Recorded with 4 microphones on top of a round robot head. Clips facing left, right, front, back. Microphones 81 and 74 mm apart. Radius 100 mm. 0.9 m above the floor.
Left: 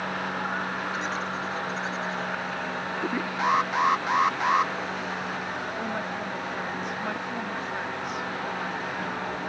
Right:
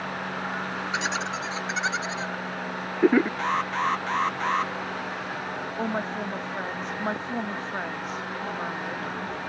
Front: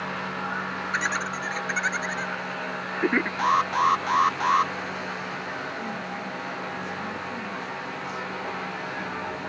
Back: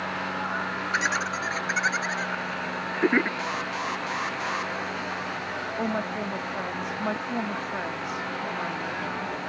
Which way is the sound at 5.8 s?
145° right.